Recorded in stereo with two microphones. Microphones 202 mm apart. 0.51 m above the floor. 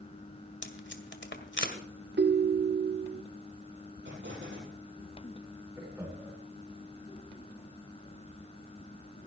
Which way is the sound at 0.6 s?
65° left (ahead or behind).